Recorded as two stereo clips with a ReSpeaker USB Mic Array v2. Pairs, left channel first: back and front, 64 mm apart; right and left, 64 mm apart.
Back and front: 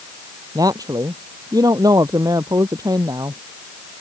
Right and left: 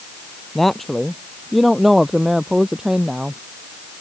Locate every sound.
0.6 s a woman speaking: 5° right; by 3.4 s 10° left